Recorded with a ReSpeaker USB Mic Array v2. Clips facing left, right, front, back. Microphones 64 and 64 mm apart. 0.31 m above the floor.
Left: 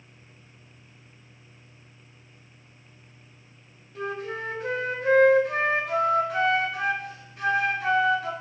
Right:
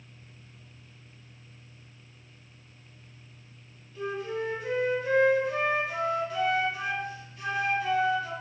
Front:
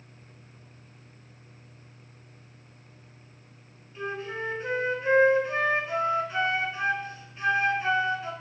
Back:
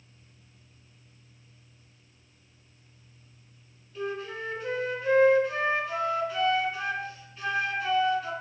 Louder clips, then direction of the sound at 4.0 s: Even, even; 65° left.